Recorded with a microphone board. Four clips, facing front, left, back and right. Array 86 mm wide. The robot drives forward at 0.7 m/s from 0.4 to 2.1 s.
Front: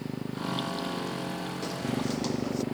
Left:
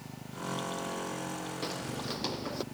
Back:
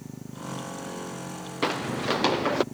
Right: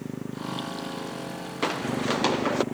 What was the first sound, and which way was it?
A motorcycle, 55° right.